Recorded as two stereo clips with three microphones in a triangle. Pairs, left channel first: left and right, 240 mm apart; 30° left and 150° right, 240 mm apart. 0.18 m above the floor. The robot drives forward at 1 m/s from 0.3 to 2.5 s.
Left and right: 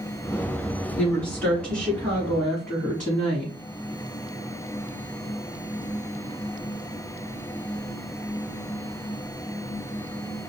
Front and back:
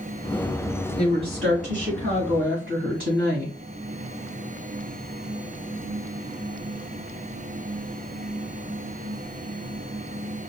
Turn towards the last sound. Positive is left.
turn(degrees=175)